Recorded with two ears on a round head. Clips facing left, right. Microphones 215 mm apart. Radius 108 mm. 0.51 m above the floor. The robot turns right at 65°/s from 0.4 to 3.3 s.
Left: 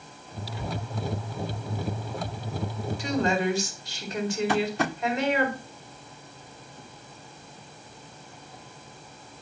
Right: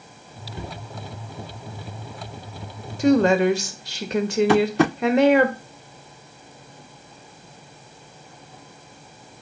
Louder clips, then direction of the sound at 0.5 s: Left 1 dB; 35° right (ahead or behind).